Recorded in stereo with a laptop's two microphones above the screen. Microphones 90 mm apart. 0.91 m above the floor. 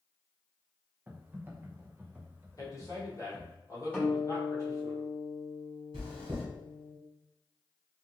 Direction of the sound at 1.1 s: 20° right (ahead or behind).